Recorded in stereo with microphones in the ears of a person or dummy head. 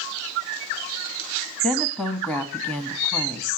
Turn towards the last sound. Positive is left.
turn(degrees=10)  # may be behind; listen again after turning